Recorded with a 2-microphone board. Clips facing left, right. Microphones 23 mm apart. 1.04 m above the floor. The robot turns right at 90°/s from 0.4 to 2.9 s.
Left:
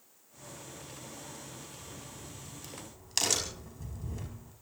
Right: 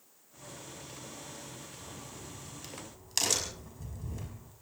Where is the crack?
90° right, 5.5 m; by 4.5 s 5° left (ahead or behind), 5.5 m.